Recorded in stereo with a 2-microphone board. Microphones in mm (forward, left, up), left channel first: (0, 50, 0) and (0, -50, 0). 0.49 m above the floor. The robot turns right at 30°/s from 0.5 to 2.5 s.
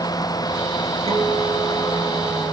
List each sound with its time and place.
1.1 s a guitar: 90° right, 4 m; by 2.5 s 45° right, 4 m